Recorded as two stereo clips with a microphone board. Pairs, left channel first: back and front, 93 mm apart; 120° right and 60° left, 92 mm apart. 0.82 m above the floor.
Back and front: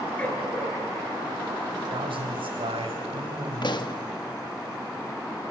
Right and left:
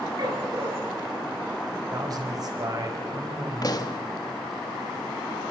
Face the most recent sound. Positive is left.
turn(degrees=-155)